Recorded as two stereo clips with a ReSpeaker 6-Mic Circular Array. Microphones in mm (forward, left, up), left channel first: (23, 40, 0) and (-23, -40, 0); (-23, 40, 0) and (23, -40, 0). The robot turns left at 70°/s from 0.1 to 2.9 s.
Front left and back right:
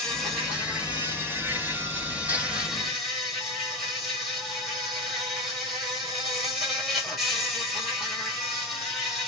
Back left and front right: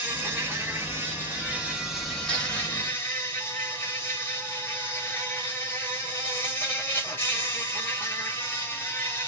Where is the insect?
15° right, 1.4 m; by 9.3 s 150° left, 1.4 m.